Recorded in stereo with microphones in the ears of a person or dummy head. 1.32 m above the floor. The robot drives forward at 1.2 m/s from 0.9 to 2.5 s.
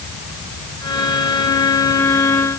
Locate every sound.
Only background noise.